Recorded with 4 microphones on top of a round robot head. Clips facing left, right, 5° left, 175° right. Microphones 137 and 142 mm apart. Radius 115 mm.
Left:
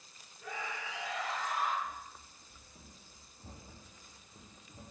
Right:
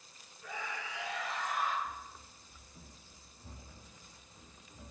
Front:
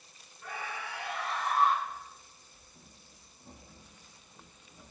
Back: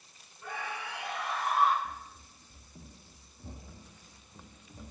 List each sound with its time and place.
0.4 s a scream: 115° left, 7.5 m; by 1.8 s 105° left, 8 m
1.9 s running footsteps: 170° right, 1.3 m; by 4.9 s 155° left, 2.5 m